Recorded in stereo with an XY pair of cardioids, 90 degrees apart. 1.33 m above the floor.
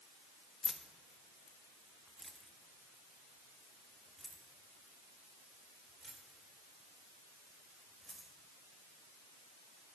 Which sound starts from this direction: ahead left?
Keys jangling, at 0.6 s.